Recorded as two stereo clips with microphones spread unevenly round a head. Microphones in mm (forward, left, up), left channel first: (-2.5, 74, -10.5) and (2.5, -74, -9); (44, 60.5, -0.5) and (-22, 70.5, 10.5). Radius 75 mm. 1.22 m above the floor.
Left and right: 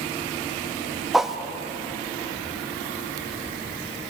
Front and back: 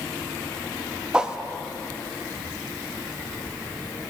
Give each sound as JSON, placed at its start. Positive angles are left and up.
{"t": 1.1, "sound": "a whoosh", "azimuth_deg": -170, "distance_m": 0.6}